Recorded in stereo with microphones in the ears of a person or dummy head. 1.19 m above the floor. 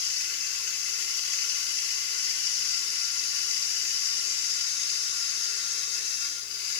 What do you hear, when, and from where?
0.0 s running water: 65° left (ahead or behind), 1.4 m